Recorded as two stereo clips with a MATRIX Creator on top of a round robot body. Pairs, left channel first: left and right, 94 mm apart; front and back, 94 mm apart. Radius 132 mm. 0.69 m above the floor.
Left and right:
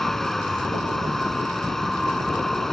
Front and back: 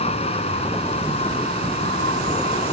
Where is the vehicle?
5° left.